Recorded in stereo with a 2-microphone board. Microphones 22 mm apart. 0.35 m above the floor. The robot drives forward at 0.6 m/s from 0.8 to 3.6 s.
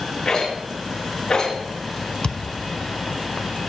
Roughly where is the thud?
Left.